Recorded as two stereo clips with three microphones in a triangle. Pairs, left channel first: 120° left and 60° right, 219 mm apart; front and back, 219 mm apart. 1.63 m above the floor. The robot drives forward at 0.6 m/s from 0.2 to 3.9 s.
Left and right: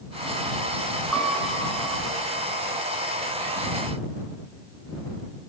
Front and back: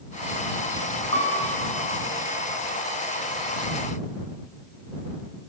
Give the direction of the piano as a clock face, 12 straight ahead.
5 o'clock.